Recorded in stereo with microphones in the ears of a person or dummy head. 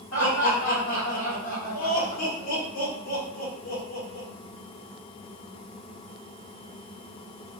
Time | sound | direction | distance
0.1 | laughter | 80° left | 1.8 m